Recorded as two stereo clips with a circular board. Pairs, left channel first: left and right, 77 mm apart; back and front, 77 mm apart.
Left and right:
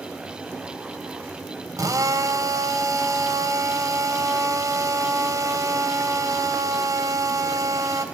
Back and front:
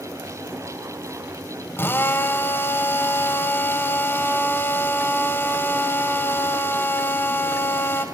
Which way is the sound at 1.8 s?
125° right.